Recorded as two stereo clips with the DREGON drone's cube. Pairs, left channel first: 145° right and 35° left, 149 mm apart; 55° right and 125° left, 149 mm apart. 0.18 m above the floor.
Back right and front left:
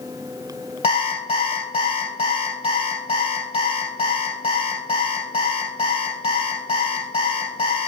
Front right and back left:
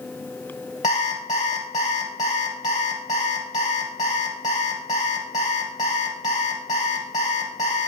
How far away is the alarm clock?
About 2.5 m.